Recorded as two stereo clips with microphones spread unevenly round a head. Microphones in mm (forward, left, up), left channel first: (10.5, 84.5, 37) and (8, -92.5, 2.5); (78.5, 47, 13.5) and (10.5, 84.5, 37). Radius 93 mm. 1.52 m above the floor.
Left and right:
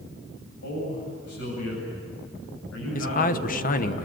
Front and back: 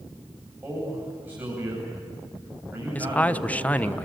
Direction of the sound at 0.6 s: 90° left.